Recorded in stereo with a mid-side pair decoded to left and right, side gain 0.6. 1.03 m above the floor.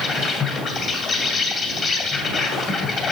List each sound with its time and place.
0.0 s an insect: 45° left, 1.9 m